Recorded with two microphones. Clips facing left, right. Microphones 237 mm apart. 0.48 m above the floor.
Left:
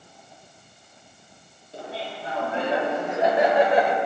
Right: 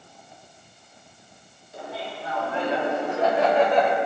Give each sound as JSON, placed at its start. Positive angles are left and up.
{"t": 1.7, "sound": "laughter", "side_deg": 35, "distance_m": 3.5}